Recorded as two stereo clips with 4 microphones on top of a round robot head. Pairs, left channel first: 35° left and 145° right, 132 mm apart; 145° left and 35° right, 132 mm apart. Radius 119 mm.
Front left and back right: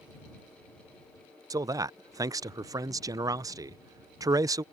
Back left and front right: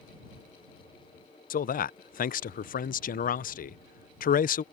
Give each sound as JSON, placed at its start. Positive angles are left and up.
{"t": 1.5, "sound": "a man speaking", "azimuth_deg": 150}